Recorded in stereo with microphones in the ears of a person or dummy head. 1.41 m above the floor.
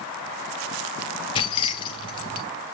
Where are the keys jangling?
25° left (ahead or behind), 0.7 m.